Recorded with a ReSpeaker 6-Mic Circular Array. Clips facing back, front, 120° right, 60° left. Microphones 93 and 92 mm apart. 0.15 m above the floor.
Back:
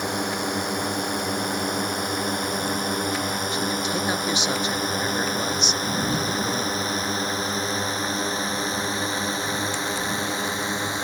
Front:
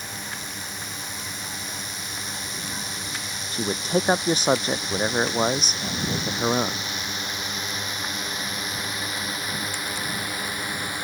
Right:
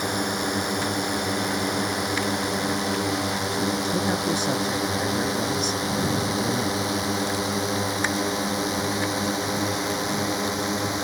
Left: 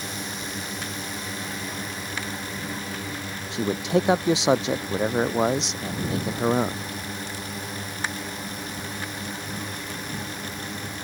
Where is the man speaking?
50° left.